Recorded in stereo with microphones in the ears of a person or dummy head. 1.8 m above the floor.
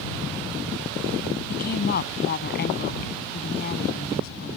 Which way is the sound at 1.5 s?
55° left (ahead or behind).